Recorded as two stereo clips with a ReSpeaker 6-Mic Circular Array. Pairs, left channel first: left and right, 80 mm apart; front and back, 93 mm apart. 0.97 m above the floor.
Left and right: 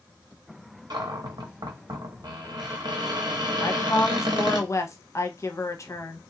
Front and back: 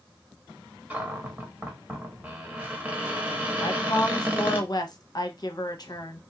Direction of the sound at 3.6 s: 40° left.